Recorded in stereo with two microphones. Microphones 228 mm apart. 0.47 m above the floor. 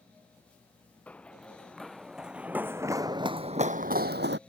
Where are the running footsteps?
5° left (ahead or behind); by 4.4 s 55° right (ahead or behind).